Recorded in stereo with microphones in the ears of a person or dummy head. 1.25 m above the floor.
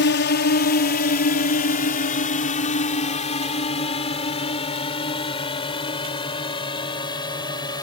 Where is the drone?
50° left (ahead or behind); by 7.8 s 15° left (ahead or behind).